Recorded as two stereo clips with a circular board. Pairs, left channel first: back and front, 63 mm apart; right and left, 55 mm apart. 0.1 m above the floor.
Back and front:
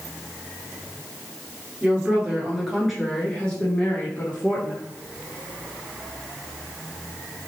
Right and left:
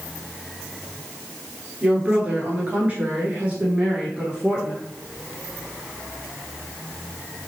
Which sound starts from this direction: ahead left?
A woman speaking, at 1.8 s.